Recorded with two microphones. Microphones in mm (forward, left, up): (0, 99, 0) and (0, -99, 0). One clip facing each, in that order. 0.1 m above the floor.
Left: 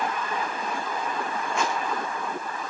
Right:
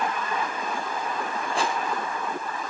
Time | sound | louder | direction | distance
1.6 | a rattle | right 1 dB | 35° right (ahead or behind) | 3 m